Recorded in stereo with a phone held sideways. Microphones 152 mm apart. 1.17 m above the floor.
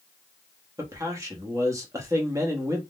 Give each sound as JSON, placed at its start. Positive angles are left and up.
{"t": 0.8, "sound": "a man speaking", "side_deg": -20, "distance_m": 1.0}